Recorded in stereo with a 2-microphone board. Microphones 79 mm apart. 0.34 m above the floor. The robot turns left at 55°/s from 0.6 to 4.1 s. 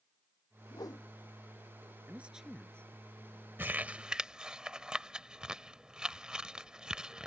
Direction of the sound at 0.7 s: 60° left (ahead or behind).